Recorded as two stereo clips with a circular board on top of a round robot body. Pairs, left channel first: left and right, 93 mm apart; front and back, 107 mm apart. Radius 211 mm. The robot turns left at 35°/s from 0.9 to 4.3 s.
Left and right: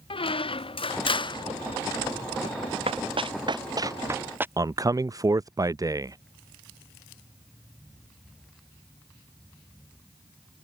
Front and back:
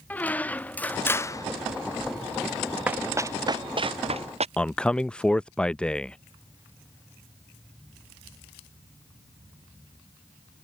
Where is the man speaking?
75° right.